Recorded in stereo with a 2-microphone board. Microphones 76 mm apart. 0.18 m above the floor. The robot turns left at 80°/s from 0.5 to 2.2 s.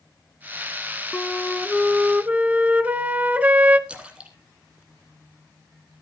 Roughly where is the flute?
Ahead left.